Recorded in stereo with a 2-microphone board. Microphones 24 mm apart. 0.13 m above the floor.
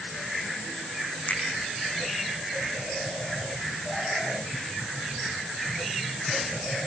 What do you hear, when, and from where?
1.3 s a finger snap: 80° left, 6 m